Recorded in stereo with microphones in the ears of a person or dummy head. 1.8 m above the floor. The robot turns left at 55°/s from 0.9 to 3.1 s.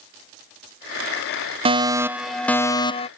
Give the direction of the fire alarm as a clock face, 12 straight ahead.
5 o'clock.